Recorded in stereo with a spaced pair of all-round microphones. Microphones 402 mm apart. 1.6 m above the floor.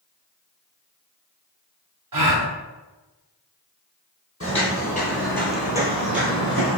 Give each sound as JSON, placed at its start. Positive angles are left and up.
{"t": 2.1, "sound": "a gasp", "side_deg": -55, "distance_m": 0.7}
{"t": 4.4, "sound": "footsteps", "side_deg": 35, "distance_m": 1.9}